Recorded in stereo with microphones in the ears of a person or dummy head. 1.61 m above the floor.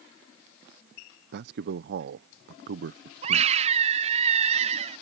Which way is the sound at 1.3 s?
60° right (ahead or behind).